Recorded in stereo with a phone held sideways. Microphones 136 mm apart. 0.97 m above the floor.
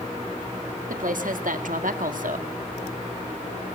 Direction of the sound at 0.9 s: 80° right.